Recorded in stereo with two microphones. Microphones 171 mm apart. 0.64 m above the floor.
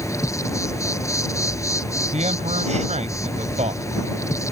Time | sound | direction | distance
0.0 | an insect | 20° left (ahead or behind) | ?
2.1 | a man speaking | 45° right (ahead or behind) | ?